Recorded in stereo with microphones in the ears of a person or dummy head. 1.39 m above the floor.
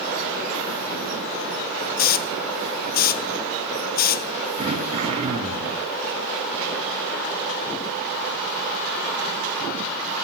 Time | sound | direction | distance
2.0 | a hiss | 50° left (ahead or behind) | 0.7 m
4.6 | throat clearing | 35° right (ahead or behind) | 3 m